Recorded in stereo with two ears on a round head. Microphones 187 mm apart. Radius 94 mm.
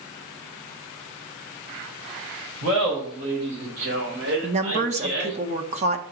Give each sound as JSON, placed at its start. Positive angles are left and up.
{"t": 2.6, "sound": "laughter", "side_deg": -85, "distance_m": 5.0}
{"t": 4.4, "sound": "a woman speaking", "side_deg": -35, "distance_m": 1.1}